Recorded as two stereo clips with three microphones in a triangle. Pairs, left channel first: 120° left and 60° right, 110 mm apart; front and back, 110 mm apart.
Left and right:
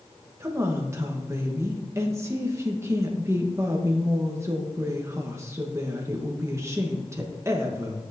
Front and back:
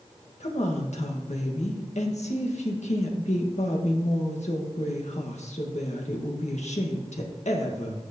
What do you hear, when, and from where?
0.4 s a woman speaking: 5° left, 1.4 m